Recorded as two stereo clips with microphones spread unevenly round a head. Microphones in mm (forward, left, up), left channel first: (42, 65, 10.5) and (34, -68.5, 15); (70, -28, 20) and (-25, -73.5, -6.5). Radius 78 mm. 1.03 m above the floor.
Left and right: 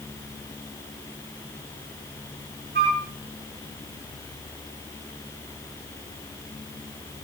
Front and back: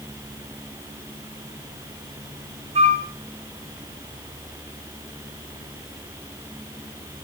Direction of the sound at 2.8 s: 125° right.